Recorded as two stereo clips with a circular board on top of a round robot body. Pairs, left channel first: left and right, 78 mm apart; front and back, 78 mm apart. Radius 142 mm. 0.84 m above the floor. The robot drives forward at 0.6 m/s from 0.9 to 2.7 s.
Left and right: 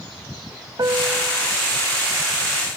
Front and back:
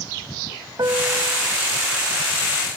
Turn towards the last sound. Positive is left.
turn(degrees=-150)